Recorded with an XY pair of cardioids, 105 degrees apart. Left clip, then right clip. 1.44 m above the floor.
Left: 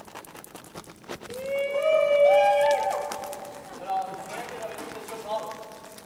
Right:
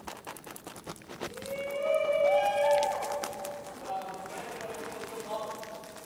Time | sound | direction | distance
1.3 | a shout | 60° left | 6 m